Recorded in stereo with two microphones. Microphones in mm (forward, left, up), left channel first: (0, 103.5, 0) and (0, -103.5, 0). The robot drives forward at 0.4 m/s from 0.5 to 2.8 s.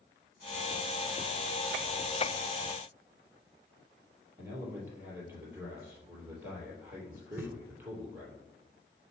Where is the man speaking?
10° right (ahead or behind), 3 m.